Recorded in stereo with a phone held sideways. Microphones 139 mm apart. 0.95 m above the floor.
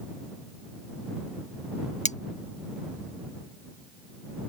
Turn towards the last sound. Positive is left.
turn(degrees=60)  # may be behind; listen again after turning